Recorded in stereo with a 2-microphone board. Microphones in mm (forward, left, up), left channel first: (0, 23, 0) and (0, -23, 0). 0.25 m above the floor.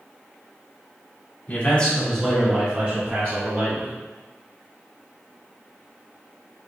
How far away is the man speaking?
About 1.6 m.